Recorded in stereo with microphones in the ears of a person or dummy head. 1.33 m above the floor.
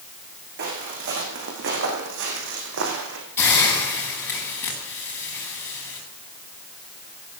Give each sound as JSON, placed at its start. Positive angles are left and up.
{"t": 0.6, "sound": "footsteps", "side_deg": -55, "distance_m": 8.0}
{"t": 3.4, "sound": "a hiss", "side_deg": 10, "distance_m": 9.5}